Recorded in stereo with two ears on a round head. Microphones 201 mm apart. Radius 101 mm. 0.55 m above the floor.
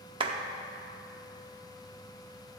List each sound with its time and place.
0.2 s a clap: 25° right (ahead or behind), 0.8 m